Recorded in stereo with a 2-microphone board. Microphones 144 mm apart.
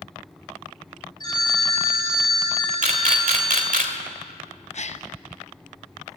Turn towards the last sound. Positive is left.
turn(degrees=55)  # may be behind; listen again after turning